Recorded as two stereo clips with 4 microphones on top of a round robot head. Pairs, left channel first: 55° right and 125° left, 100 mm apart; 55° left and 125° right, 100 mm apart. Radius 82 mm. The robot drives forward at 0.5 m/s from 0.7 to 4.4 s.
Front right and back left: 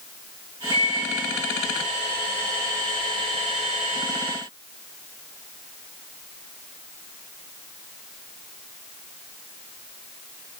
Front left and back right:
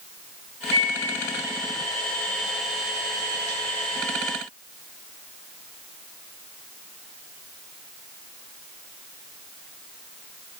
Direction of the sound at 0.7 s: 95° right.